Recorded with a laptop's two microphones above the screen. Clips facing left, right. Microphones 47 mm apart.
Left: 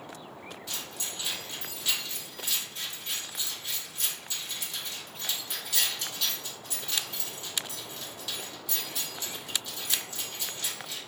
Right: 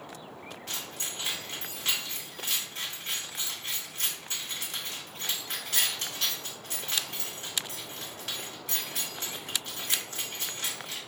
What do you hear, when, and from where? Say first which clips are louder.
0.7 s keys jangling: right 2 dB; 45° right (ahead or behind), 2.0 m